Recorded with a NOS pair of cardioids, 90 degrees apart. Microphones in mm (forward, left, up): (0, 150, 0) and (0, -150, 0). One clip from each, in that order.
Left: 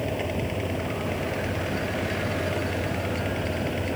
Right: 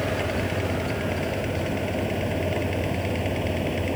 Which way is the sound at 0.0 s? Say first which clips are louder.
Right 3 dB; 10° right.